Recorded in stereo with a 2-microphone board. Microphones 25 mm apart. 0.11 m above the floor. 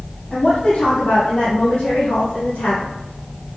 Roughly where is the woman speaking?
Left.